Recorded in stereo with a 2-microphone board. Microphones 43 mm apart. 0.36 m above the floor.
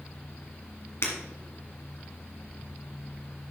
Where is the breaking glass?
80° left, 2 m.